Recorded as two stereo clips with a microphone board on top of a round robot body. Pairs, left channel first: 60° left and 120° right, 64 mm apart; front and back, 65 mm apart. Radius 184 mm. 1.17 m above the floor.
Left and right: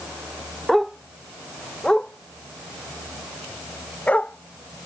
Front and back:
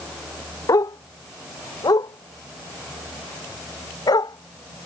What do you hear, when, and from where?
0.7 s a dog barking: 30° right; by 4.9 s 5° right